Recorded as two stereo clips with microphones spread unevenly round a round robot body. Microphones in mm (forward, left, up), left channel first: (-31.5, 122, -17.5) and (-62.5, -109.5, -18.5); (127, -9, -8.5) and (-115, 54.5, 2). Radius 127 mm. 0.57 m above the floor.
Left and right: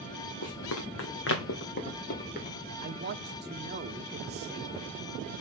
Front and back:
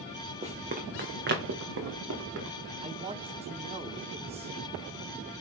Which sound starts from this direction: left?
Running footsteps, at 0.4 s.